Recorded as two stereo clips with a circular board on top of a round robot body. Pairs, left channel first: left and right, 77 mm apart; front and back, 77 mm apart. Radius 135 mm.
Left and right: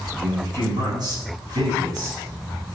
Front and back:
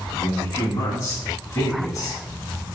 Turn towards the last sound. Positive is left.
turn(degrees=-50)